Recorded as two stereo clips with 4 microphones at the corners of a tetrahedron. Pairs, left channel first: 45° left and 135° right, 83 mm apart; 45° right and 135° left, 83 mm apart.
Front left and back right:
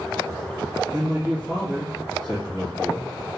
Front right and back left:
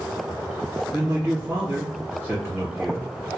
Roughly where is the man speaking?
Behind.